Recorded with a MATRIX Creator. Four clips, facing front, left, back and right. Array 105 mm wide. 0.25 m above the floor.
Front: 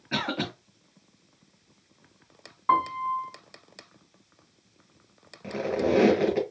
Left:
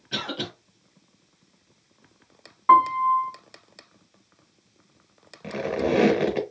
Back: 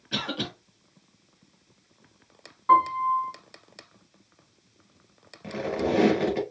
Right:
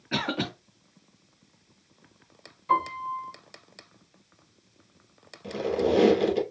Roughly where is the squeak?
Left.